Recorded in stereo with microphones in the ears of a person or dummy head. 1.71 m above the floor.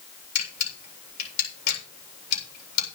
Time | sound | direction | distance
0.3 | a camera shutter | 60° left (ahead or behind) | 8 m